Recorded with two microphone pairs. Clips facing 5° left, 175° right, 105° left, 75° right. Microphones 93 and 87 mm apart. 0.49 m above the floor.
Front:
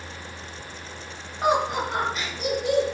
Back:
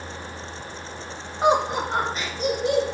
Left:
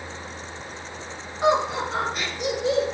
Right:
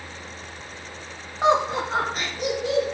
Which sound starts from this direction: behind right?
Laughter, at 1.4 s.